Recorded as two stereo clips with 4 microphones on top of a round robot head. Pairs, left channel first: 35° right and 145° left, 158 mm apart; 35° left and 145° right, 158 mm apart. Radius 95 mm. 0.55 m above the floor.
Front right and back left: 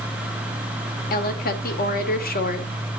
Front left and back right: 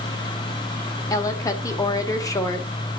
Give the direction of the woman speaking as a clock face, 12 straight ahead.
1 o'clock.